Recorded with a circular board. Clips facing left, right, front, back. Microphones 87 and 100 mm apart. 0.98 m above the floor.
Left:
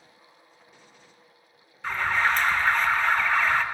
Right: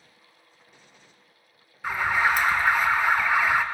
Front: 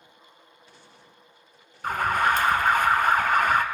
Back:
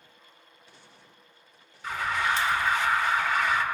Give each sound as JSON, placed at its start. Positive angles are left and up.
{"t": 1.8, "sound": "an alarm", "azimuth_deg": -10, "distance_m": 0.6}